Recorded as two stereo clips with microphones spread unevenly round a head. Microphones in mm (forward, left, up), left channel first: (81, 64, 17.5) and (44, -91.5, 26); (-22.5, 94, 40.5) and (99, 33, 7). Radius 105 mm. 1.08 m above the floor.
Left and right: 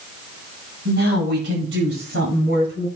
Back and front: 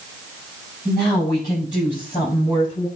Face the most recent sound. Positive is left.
turn(degrees=-135)